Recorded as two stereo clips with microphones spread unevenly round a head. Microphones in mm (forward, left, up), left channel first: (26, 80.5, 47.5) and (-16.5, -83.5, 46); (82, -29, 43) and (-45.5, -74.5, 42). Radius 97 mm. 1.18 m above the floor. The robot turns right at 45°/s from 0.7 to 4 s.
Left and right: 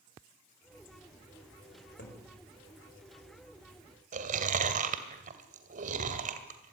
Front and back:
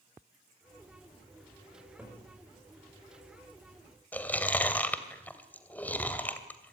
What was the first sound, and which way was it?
A cupboard door, 105° left.